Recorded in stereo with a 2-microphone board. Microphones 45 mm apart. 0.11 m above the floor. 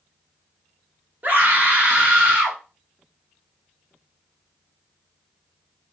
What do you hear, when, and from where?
1.2 s a scream: 40° right (ahead or behind), 1.6 m; by 2.6 s 25° right (ahead or behind), 1.7 m